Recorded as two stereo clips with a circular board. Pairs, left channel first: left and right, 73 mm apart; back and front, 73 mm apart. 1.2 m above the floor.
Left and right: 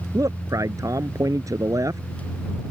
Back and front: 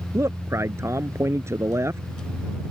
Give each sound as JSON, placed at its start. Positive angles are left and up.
{"t": 0.1, "sound": "a man speaking", "azimuth_deg": -50}